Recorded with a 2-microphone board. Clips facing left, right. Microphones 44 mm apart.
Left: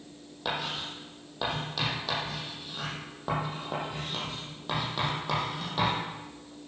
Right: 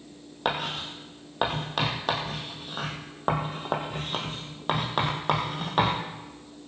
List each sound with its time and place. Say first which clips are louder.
0.5 s writing: right 4 dB; 45° right (ahead or behind), 3 m